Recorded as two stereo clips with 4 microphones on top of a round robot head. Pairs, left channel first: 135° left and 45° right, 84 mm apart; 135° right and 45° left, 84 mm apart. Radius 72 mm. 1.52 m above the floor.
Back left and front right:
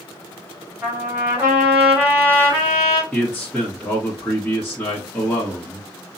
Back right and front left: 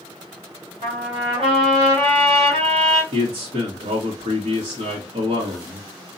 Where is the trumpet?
25° left, 2.5 m.